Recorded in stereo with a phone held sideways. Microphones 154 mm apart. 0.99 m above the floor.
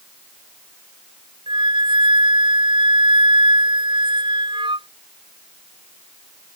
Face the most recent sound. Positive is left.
turn(degrees=-30)  # may be behind; listen again after turning